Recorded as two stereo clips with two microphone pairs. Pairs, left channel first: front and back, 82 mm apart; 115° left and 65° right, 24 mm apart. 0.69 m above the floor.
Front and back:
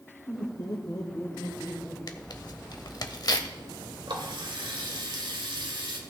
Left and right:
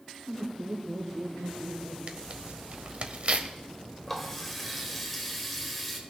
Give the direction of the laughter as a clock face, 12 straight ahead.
1 o'clock.